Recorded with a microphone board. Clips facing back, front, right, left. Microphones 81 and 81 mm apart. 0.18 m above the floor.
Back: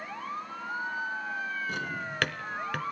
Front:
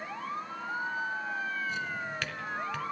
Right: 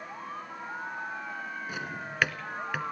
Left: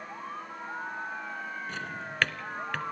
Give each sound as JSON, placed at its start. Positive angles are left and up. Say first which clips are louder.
{"t": 1.7, "sound": "a drawer", "louder": "back 1 dB, even", "azimuth_deg": -170, "distance_m": 1.1}